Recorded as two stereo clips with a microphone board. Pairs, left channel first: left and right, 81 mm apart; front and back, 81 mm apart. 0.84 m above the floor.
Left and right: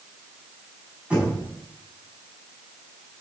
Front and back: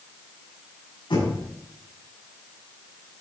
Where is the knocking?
15° right, 6.5 m.